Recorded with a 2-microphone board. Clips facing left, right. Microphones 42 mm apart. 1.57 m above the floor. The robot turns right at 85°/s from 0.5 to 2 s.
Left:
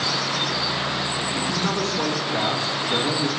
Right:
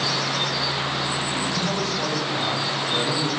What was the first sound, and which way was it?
A man speaking, 10° left.